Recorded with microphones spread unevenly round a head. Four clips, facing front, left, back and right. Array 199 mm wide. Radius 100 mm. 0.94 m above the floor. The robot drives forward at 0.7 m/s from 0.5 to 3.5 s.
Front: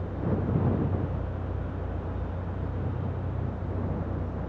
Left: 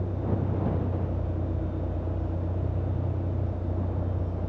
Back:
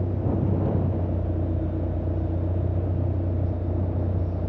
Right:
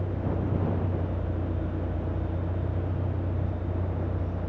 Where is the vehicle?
Straight behind.